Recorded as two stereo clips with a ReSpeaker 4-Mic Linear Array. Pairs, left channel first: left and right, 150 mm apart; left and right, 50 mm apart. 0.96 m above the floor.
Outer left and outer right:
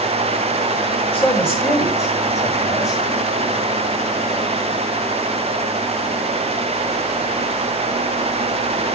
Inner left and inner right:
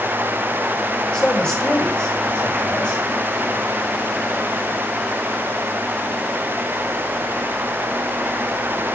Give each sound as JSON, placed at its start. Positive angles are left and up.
{"t": 1.1, "sound": "a man speaking", "side_deg": 15, "distance_m": 6.0}